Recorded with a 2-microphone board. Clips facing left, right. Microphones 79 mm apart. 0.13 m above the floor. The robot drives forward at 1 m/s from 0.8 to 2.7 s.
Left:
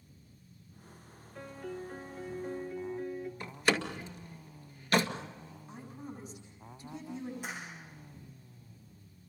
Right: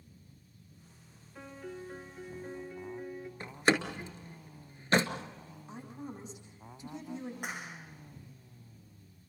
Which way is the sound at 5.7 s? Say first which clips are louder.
Right 2 dB; 20° right (ahead or behind).